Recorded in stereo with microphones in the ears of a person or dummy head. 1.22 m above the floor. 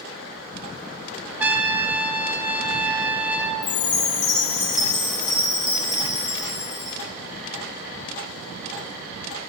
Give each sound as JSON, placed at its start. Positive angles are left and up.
{"t": 1.4, "sound": "a trumpet", "side_deg": -10, "distance_m": 0.9}
{"t": 3.6, "sound": "a chime", "side_deg": 35, "distance_m": 1.1}